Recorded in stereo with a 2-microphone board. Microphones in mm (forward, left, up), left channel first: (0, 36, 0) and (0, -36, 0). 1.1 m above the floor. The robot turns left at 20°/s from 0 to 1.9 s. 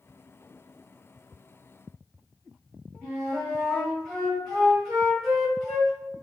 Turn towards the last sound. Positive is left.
turn(degrees=0)  # may be behind; listen again after turning